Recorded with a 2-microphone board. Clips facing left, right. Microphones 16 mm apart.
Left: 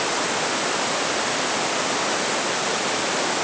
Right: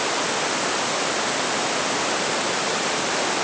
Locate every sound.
Only background noise.